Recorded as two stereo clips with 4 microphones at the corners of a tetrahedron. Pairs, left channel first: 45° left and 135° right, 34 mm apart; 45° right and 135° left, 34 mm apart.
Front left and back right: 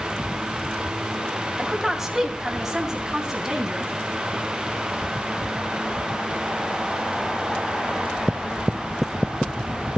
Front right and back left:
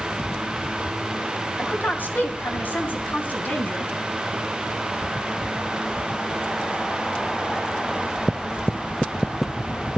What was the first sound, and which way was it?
A woman speaking, 50° right.